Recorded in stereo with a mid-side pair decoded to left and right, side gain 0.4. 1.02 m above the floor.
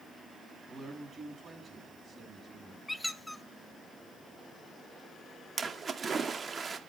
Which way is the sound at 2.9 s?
10° left.